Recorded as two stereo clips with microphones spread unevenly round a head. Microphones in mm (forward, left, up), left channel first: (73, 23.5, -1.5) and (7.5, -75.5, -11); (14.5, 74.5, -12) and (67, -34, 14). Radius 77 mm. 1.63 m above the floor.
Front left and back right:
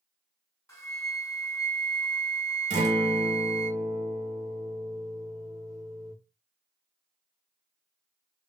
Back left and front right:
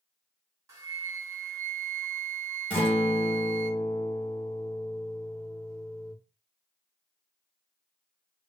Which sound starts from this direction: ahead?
A flute, at 0.7 s.